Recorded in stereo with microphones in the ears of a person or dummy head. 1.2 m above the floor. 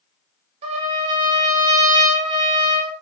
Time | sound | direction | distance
0.6 | a trumpet | 35° right (ahead or behind) | 0.5 m